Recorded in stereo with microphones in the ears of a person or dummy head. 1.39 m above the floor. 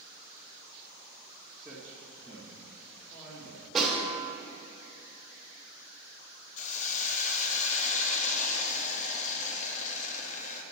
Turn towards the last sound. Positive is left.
turn(degrees=40)  # may be behind; listen again after turning